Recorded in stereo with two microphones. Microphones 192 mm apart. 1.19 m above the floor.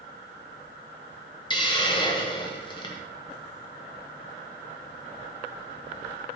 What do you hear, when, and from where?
1.5 s a hiss: 25° left (ahead or behind), 0.7 m